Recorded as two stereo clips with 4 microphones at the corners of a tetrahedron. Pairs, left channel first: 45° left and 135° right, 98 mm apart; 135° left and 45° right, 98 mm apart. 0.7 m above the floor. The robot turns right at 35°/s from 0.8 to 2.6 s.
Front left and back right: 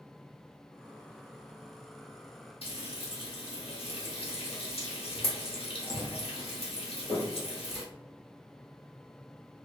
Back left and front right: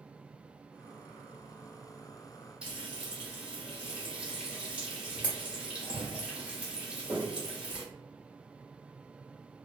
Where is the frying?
35° left, 1.1 m.